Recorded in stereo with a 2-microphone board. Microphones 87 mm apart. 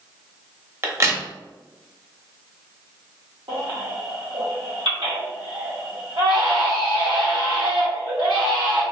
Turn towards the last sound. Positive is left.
turn(degrees=-75)  # may be behind; listen again after turning